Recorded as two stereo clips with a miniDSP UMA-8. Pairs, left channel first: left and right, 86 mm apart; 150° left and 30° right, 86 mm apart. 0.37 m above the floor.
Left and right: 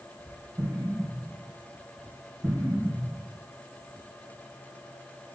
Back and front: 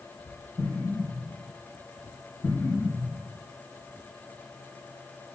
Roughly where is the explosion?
Behind right.